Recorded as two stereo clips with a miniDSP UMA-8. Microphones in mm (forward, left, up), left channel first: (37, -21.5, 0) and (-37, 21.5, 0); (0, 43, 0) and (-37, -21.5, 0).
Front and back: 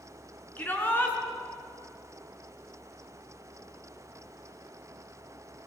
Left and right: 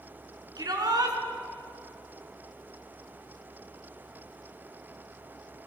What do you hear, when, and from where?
0.6 s a shout: 100° right, 4 m